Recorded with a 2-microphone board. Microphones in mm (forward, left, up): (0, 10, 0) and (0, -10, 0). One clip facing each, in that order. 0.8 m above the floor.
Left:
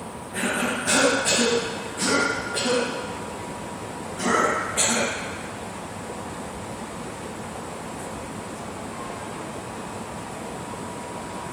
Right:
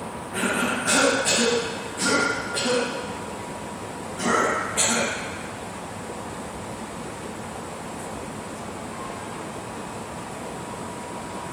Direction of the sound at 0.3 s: 10° right (ahead or behind).